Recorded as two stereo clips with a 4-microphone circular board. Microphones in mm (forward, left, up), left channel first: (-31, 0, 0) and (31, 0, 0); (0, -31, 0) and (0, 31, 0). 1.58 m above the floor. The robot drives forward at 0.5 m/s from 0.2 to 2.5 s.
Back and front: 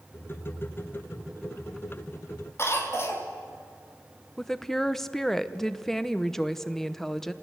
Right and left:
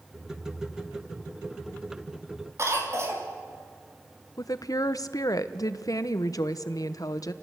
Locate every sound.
2.6 s a cough: 130° left, 3.5 m
4.4 s a woman speaking: 95° right, 1.0 m